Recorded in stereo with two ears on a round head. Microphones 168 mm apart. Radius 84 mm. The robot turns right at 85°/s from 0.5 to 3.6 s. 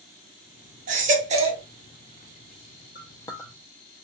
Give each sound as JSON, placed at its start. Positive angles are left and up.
{"t": 0.9, "sound": "a baby crying", "azimuth_deg": -105, "distance_m": 0.7}
{"t": 3.0, "sound": "a clink", "side_deg": 50, "distance_m": 0.6}